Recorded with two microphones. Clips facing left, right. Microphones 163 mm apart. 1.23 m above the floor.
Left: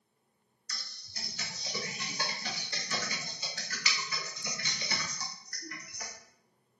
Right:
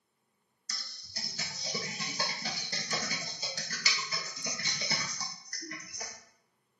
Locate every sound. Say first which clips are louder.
0.7 s typing on a keyboard: right 1 dB; 35° right (ahead or behind), 0.8 m